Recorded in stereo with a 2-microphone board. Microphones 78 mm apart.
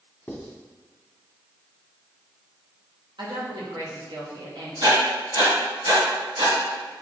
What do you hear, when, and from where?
0.3 s writing: 25° left (ahead or behind), 1.5 m
3.2 s a woman speaking: 75° right (ahead or behind), 2.0 m
4.8 s writing: 65° right (ahead or behind), 2.5 m